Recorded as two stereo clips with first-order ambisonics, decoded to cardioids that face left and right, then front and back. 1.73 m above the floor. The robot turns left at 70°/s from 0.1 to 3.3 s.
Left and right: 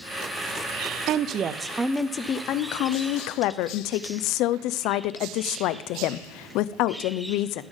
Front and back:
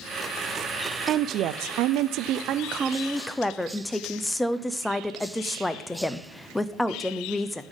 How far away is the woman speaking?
About 0.5 m.